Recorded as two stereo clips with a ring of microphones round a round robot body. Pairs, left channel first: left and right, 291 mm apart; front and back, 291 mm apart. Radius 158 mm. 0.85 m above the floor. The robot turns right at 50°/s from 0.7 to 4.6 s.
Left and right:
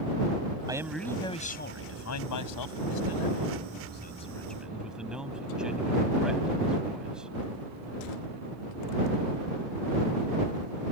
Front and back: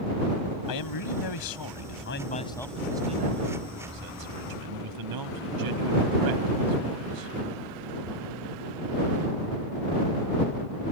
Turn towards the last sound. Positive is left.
turn(degrees=180)